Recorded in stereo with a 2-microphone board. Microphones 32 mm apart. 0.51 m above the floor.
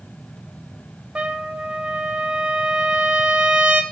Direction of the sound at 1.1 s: 35° right (ahead or behind).